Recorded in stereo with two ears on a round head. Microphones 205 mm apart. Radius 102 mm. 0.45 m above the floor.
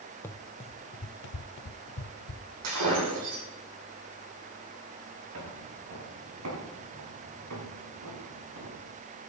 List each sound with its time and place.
0.2 s running footsteps: 10° left (ahead or behind), 0.8 m; by 2.5 s 65° left (ahead or behind), 1.2 m
2.6 s breaking glass: 75° right (ahead or behind), 9 m
5.3 s footsteps: 60° right (ahead or behind), 6.5 m; by 8.9 s 85° right, 5 m